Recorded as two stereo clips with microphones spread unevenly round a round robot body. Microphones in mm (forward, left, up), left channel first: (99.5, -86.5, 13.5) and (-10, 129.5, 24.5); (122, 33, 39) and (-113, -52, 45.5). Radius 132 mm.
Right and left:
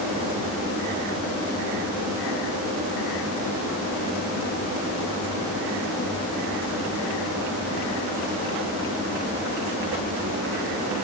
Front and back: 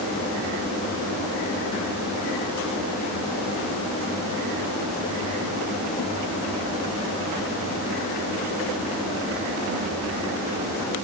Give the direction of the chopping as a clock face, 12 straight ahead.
I don't hear chopping.